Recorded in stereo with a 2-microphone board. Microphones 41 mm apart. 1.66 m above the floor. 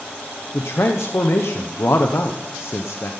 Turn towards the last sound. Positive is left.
turn(degrees=75)  # may be behind; listen again after turning